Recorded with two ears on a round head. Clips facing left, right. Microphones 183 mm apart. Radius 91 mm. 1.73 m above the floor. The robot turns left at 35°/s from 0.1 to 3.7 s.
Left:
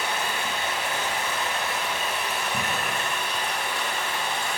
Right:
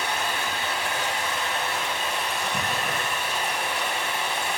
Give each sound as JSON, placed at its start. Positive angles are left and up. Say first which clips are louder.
{"t": 0.0, "sound": "running water", "louder": "even", "side_deg": 20, "distance_m": 1.5}